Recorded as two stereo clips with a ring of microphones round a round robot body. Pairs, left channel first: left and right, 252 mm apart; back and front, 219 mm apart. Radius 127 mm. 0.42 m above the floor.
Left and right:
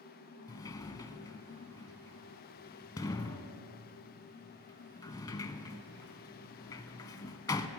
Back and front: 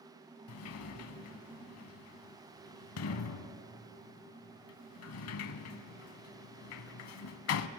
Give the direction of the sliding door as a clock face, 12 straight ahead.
6 o'clock.